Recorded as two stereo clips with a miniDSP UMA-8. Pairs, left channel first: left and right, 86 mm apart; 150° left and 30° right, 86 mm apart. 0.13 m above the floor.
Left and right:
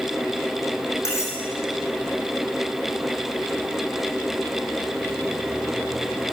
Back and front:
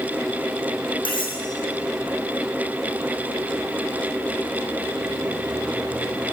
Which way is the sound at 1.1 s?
145° left.